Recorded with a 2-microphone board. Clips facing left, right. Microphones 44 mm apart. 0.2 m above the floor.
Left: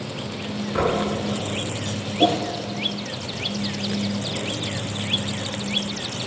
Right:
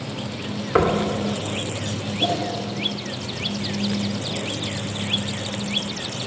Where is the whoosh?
55° left (ahead or behind), 2.5 m.